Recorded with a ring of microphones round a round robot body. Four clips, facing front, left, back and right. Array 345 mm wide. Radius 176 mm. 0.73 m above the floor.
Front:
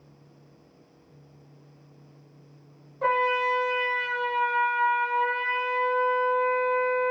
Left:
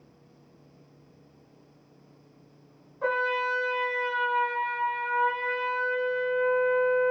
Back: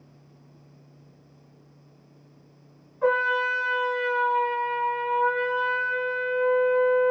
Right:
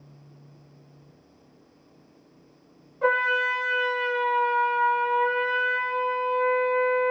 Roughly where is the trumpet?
Ahead right.